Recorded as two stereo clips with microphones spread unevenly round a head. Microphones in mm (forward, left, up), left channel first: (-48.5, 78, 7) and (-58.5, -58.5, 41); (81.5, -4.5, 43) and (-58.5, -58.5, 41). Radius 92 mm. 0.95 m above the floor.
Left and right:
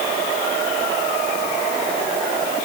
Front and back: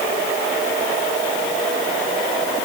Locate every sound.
Only background noise.